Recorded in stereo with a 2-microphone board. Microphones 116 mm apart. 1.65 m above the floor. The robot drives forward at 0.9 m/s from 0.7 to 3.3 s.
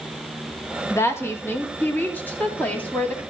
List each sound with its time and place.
0.9 s a woman speaking: 25° left (ahead or behind), 2 m; by 3.2 s 10° left (ahead or behind), 4 m